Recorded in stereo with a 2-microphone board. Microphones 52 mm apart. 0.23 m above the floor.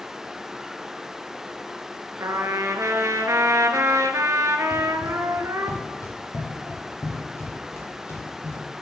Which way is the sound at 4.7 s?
80° left.